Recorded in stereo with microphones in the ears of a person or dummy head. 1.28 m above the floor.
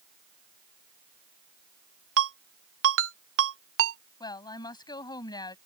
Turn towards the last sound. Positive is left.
turn(degrees=20)  # may be behind; listen again after turning